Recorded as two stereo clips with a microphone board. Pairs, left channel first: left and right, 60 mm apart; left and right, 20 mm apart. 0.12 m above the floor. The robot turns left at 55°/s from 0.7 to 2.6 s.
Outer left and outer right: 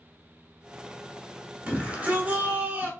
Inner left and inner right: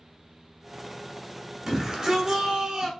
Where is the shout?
25° right (ahead or behind), 1.3 m.